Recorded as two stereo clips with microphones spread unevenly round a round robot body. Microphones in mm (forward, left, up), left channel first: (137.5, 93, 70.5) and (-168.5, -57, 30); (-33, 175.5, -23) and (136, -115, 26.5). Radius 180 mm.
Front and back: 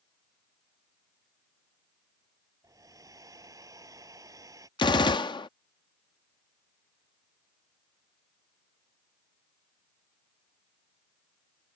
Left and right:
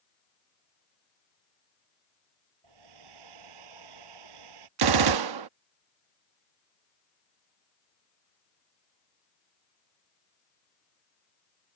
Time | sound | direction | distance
2.6 | a hair dryer | 75° right | ?
4.8 | a gunshot | 55° right | ?